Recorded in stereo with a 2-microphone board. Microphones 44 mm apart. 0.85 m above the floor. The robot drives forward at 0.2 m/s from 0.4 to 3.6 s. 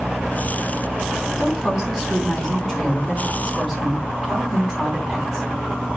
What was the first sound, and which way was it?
A woman speaking, 5° right (ahead or behind).